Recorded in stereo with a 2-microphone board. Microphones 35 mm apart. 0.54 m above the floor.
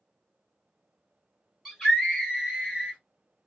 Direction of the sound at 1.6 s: 5° left (ahead or behind).